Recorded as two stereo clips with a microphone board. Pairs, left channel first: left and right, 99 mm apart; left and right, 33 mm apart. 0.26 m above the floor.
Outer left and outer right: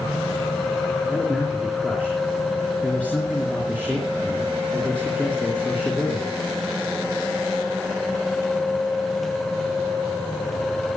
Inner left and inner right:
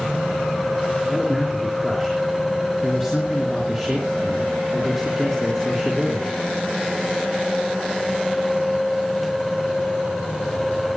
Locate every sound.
1.1 s a man speaking: 10° left (ahead or behind), 4.5 m